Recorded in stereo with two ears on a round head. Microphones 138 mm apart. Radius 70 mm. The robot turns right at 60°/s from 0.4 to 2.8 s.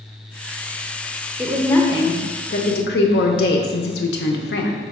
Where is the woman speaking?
10° right, 0.6 m; by 4.8 s 75° left, 0.6 m.